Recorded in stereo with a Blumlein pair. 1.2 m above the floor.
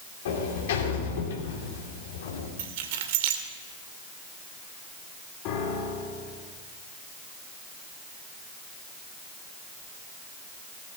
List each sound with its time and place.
0.2 s a sliding door: 60° left, 3 m
2.6 s keys jangling: 50° right, 2 m
5.5 s a piano: 40° left, 3.5 m